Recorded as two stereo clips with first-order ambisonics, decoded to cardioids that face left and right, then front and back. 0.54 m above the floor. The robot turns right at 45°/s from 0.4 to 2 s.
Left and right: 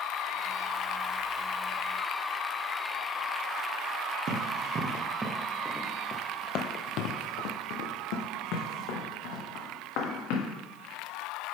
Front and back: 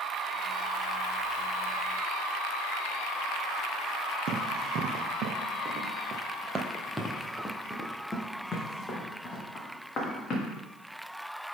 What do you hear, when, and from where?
4.3 s running footsteps: 140° right, 1.2 m; by 10.5 s 65° left, 2.5 m